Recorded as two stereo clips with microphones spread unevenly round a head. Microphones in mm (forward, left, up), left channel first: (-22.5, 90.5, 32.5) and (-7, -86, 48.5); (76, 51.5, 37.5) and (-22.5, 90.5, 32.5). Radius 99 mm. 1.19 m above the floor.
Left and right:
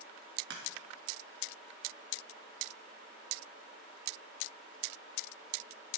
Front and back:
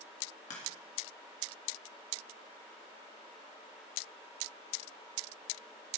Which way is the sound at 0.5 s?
50° right.